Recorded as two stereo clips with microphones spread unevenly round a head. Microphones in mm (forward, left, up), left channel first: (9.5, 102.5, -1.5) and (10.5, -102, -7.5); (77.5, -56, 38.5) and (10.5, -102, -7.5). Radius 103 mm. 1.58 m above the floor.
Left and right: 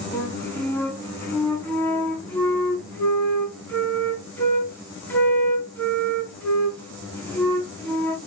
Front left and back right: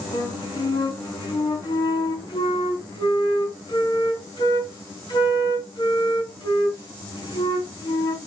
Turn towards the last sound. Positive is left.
turn(degrees=10)